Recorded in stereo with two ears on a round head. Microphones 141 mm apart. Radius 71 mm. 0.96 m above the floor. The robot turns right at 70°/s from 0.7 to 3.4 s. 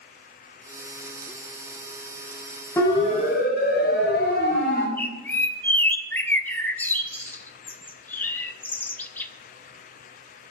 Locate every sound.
2.8 s a siren: 15° left (ahead or behind), 5 m; by 4.9 s 75° left (ahead or behind), 4 m
5.0 s a bird: 10° left (ahead or behind), 1.0 m